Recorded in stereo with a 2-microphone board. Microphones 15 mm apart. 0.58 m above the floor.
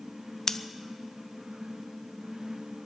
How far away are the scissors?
About 0.6 m.